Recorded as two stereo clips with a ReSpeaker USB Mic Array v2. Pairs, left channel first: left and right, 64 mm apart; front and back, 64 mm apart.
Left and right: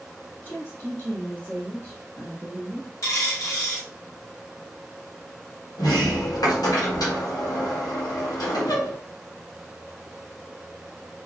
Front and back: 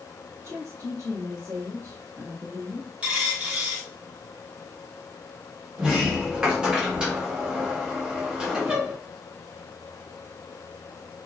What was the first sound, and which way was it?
A woman speaking, 140° left.